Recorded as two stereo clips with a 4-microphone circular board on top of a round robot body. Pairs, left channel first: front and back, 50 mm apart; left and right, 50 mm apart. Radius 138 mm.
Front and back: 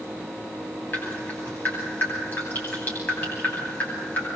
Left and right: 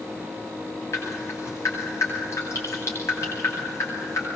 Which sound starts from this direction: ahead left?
Dripping, at 0.9 s.